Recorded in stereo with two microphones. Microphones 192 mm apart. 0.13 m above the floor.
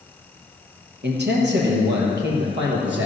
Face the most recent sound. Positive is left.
turn(degrees=-70)  # may be behind; listen again after turning